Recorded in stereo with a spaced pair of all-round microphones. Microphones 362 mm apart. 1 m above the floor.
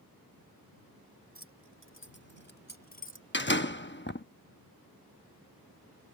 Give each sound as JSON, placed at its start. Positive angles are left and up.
{"t": 1.4, "sound": "keys jangling", "side_deg": 40}
{"t": 3.3, "sound": "a door slam", "side_deg": 30}